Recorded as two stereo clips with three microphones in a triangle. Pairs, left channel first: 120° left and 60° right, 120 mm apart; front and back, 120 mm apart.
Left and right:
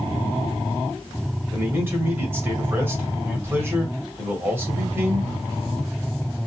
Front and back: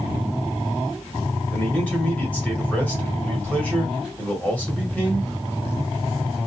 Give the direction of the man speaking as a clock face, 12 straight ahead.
2 o'clock.